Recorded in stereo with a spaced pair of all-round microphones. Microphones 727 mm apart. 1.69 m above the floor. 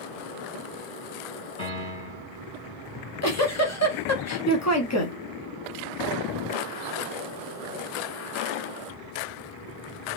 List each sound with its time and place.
1.6 s a piano: 50° left (ahead or behind), 2.5 m
2.9 s a giggle: 25° left (ahead or behind), 0.6 m